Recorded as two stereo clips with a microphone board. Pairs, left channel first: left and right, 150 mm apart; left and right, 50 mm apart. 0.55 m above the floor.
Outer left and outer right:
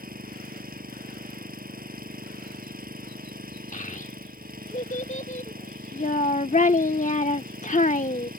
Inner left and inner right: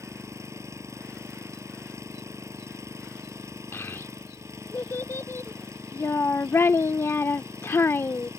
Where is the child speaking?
55° left (ahead or behind).